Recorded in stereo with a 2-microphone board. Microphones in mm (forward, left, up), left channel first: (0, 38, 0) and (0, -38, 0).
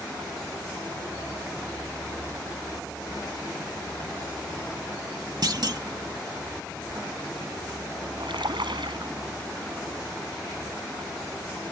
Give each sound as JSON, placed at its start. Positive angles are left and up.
{"t": 5.4, "sound": "a clunk", "side_deg": -60}
{"t": 8.2, "sound": "a splash", "side_deg": -80}